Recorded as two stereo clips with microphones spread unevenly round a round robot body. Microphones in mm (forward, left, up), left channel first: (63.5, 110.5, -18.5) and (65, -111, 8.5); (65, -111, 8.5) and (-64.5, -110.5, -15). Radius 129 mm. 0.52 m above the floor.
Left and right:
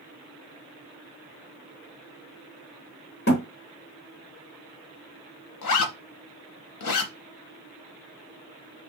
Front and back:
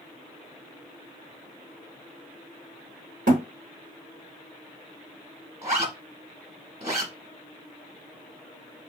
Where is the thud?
145° left, 0.7 m.